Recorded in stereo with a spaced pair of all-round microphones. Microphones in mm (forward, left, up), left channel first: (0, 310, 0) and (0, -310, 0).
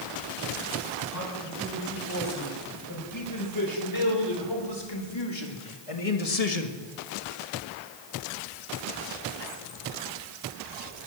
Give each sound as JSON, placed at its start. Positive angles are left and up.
{"t": 1.1, "sound": "a man speaking", "side_deg": 25, "distance_m": 7.5}